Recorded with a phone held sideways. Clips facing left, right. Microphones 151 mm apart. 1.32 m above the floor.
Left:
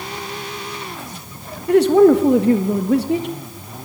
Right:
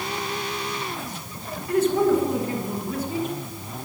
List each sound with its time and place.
1.7 s a man speaking: 75° left (ahead or behind), 1.9 m